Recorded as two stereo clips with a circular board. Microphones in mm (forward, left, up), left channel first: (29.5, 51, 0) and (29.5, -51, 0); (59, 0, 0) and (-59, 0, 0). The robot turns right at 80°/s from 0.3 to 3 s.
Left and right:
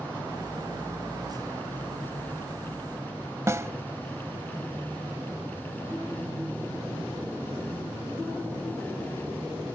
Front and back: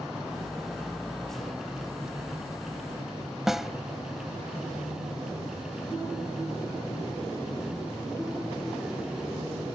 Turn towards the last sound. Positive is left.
turn(degrees=-95)